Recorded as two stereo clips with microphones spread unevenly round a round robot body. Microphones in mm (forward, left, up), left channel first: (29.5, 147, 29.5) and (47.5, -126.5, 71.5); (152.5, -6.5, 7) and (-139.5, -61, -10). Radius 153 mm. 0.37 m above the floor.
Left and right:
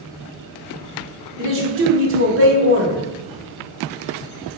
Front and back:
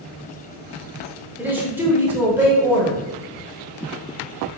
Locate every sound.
1.4 s a man speaking: 95° right, 0.9 m